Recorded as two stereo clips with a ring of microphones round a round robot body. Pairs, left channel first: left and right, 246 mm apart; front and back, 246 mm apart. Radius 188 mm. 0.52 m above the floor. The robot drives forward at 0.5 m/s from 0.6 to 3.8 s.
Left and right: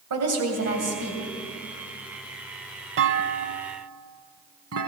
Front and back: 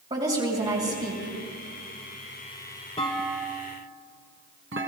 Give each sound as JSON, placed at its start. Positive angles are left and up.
{"t": 0.1, "sound": "a woman speaking", "azimuth_deg": -105, "distance_m": 3.0}
{"t": 3.0, "sound": "a clunk", "azimuth_deg": -70, "distance_m": 0.5}